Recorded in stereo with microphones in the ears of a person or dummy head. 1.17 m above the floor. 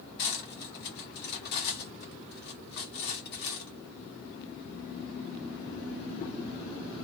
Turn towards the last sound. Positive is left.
turn(degrees=55)  # may be behind; listen again after turning